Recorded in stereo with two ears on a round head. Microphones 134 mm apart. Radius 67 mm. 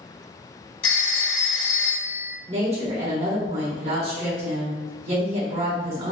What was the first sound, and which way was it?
A phone ringing, 45° left (ahead or behind).